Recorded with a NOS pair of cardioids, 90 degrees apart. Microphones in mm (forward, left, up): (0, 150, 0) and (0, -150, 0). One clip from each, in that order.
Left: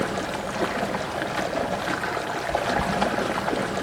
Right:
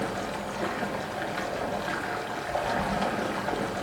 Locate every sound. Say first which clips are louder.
0.0 s running water: left 4 dB; 40° left, 1.3 m